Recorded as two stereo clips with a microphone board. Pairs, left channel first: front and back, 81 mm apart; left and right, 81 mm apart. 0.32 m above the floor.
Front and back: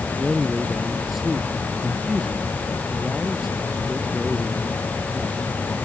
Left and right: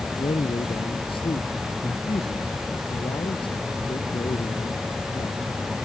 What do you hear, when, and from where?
0.2 s a man speaking: 90° left